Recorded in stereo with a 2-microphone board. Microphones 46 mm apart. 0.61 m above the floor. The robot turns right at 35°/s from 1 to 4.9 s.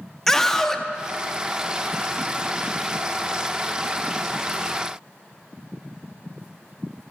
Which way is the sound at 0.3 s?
5° left (ahead or behind).